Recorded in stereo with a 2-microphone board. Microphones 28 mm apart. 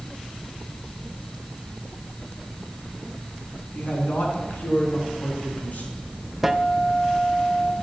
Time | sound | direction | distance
3.7 | a man speaking | 70° left (ahead or behind) | 4 m
6.4 | a guitar | 5° right (ahead or behind) | 0.7 m